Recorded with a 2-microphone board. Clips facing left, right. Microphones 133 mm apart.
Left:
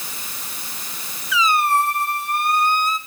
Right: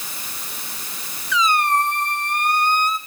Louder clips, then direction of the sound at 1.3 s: Left 1 dB; 5° left (ahead or behind).